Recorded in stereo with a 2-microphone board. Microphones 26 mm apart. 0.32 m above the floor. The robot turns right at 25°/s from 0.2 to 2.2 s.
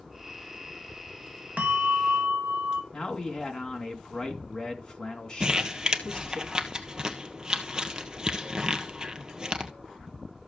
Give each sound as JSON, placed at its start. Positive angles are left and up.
{"t": 1.6, "sound": "a bell", "side_deg": -60, "distance_m": 0.7}
{"t": 2.9, "sound": "a man speaking", "side_deg": 20, "distance_m": 3.0}
{"t": 5.4, "sound": "crumpling", "side_deg": -30, "distance_m": 1.2}